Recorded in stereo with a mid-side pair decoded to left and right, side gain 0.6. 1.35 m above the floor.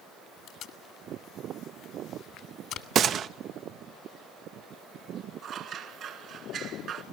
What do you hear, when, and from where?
0.5 s tape being pulled: 60° left, 1.7 m
3.0 s a gunshot: 50° right, 0.5 m
5.4 s scissors: 55° right, 1.9 m